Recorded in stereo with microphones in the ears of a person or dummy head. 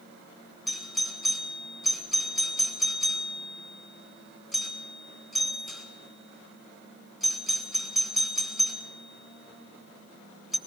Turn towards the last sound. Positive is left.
turn(degrees=0)  # may be behind; listen again after turning